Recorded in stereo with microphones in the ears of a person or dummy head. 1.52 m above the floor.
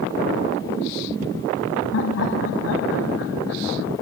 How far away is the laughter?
About 0.6 m.